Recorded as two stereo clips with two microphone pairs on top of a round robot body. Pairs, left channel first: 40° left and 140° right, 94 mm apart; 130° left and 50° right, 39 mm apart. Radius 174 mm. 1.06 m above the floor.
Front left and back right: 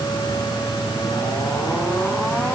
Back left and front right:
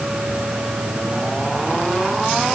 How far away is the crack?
I don't hear a crack.